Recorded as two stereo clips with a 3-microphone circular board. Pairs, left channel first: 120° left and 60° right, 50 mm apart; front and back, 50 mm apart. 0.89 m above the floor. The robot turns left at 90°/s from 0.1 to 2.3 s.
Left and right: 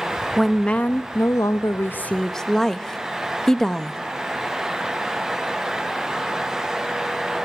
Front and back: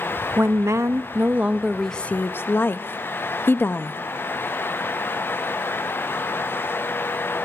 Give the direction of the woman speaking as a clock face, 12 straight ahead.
5 o'clock.